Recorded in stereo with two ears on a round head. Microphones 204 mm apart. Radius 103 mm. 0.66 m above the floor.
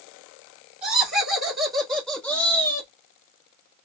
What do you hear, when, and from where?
0.8 s laughter: 5° right (ahead or behind), 2.5 m; by 2.9 s 15° left (ahead or behind), 1.2 m